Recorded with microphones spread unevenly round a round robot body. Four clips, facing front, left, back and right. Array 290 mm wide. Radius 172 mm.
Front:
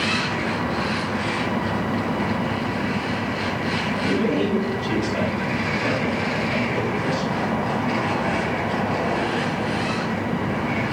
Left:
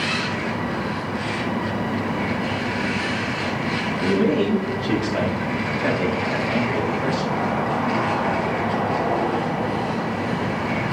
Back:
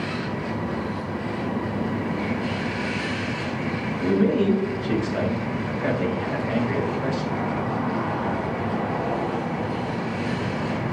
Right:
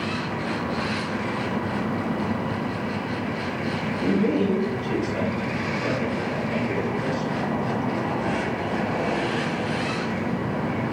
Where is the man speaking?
95° left, 6.5 m; by 7.4 s 105° left, 5 m.